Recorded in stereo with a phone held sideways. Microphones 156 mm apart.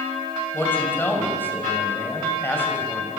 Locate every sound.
0.5 s a man speaking: 15° left (ahead or behind), 5.5 m